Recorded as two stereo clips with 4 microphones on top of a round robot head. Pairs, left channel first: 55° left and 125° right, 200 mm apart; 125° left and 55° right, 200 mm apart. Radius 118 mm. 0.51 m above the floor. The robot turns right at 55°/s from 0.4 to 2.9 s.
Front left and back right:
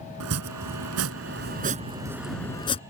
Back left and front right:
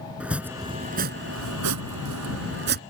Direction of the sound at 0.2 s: 140° right.